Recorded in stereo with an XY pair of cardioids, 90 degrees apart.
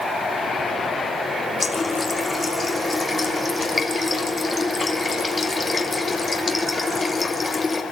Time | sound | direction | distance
1.6 | a running tap | 35° left | 2.5 m